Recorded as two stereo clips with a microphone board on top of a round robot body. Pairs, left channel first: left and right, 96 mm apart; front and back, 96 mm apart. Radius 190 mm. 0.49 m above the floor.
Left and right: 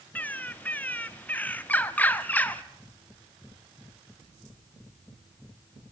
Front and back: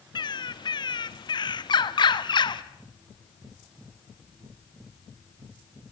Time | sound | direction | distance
0.1 | a bird | 20° left | 1.5 m